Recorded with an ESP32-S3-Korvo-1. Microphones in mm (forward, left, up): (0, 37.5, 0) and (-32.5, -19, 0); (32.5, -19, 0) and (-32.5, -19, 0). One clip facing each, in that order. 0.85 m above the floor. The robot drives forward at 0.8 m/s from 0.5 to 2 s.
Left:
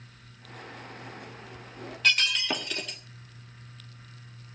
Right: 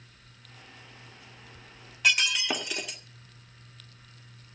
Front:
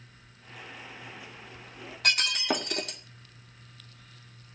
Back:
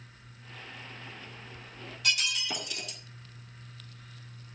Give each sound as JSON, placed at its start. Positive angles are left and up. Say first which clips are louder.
{"t": 2.0, "sound": "breaking glass", "louder": "even, front 4 dB", "azimuth_deg": -40, "distance_m": 1.4}